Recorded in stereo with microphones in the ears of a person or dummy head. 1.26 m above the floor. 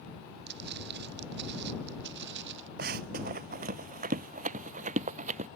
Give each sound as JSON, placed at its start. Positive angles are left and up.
{"t": 0.5, "sound": "footsteps", "side_deg": -55}
{"t": 2.8, "sound": "running footsteps", "side_deg": -50}